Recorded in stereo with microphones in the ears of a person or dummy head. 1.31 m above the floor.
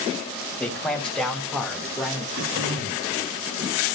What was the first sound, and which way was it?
A man speaking, 5° left (ahead or behind).